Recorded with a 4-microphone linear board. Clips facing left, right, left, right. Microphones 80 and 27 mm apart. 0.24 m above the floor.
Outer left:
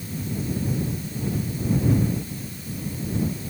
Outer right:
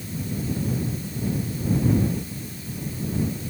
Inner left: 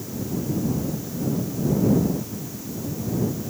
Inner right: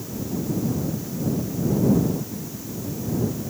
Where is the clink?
I don't hear a clink.